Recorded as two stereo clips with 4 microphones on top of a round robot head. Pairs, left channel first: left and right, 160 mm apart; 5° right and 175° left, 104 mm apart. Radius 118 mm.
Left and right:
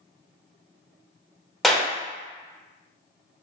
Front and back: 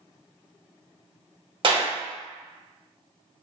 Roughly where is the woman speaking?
I don't hear a woman speaking.